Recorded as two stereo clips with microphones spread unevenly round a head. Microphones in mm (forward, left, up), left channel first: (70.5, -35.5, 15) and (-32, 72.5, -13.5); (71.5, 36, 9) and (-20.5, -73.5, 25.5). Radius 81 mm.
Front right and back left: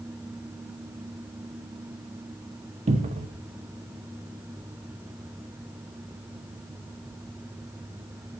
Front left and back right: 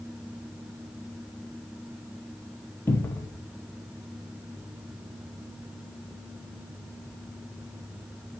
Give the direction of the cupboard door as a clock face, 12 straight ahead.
8 o'clock.